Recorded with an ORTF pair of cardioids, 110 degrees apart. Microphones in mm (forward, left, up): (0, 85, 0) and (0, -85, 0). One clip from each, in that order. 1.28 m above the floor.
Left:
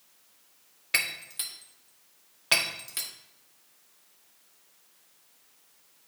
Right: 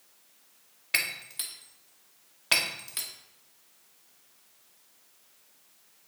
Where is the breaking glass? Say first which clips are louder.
Left 1 dB; straight ahead, 1.6 m.